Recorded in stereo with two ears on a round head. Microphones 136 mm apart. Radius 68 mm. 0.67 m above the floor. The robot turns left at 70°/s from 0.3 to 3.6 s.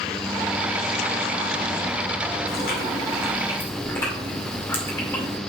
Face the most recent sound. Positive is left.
turn(degrees=15)